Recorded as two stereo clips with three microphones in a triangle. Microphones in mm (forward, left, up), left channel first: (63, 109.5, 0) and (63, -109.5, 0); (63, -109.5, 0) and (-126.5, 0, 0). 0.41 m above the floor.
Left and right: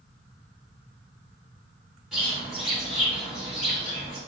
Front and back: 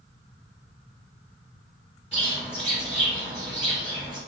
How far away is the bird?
About 1.4 m.